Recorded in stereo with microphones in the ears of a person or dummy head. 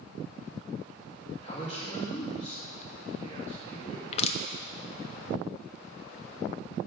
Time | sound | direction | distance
1.4 | a man speaking | 35° left (ahead or behind) | 3.5 m
4.1 | crushing | 35° left (ahead or behind) | 0.7 m